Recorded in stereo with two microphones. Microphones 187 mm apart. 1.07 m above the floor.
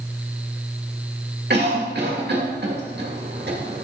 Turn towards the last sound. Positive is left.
turn(degrees=-65)  # may be behind; listen again after turning